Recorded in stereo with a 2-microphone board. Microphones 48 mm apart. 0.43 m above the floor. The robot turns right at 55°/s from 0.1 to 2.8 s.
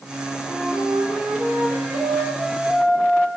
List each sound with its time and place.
0.5 s a flute: 155° right, 7 m; by 3.3 s 30° right, 7 m